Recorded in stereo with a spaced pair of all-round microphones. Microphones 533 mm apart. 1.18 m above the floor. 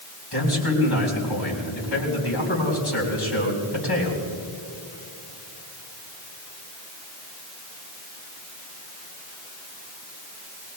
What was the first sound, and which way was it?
A man speaking, 45° left (ahead or behind).